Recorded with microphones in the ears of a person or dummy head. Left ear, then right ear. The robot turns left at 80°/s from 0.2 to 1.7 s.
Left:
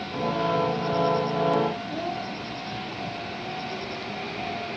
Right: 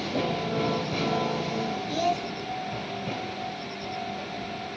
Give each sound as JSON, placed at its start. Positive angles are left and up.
{"t": 1.9, "sound": "a child speaking", "side_deg": -75, "distance_m": 1.2}